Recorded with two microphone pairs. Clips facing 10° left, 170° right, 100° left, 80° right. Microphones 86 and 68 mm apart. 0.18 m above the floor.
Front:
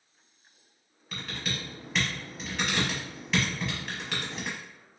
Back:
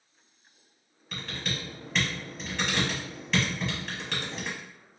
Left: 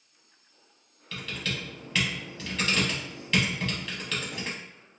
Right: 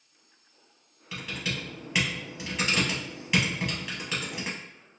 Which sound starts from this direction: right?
Typing on a keyboard, at 1.1 s.